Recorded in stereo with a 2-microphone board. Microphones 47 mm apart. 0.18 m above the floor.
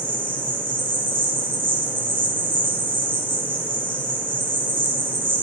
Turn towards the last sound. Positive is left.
turn(degrees=-45)  # may be behind; listen again after turning